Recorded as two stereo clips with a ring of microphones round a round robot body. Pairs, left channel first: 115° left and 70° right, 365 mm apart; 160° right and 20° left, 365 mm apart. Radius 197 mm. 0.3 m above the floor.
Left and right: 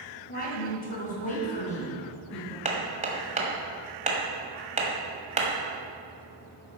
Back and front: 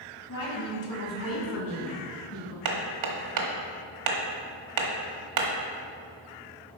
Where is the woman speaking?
175° left, 2 m; by 2.5 s 175° right, 3.5 m.